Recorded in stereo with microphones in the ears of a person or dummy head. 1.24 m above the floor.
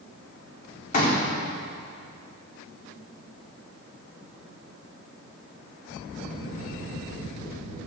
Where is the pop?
30° left (ahead or behind), 3 m.